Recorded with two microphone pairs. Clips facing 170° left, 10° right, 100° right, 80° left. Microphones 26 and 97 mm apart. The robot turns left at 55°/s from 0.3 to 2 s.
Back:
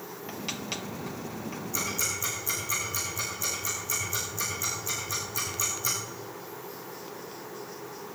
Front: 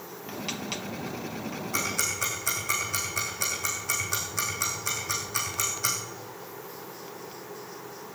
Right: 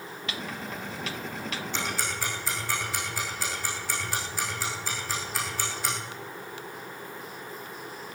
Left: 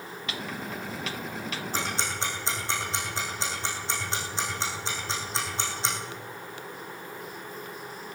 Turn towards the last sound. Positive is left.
turn(degrees=15)